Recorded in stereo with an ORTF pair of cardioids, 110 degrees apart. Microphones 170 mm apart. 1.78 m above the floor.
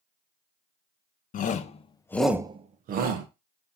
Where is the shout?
50° left, 1.7 m; by 3.3 s 75° right, 1.6 m.